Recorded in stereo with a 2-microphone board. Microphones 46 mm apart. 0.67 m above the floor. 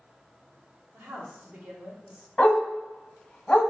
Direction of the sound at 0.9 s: 55° right (ahead or behind).